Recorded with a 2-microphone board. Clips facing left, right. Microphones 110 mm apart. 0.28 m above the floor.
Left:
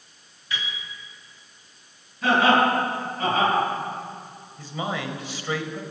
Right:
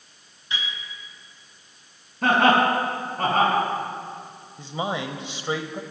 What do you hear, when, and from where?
0.5 s a piano: 25° right (ahead or behind), 4 m
2.2 s laughter: 55° right (ahead or behind), 5 m
4.6 s a man speaking: 20° right (ahead or behind), 0.9 m